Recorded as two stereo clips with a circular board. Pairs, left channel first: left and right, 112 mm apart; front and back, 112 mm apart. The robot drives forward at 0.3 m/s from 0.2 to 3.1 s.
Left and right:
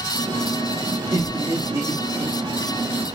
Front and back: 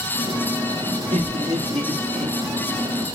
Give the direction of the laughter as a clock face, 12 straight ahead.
5 o'clock.